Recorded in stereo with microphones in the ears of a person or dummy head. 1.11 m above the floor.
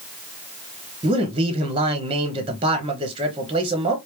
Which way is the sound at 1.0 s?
25° right (ahead or behind).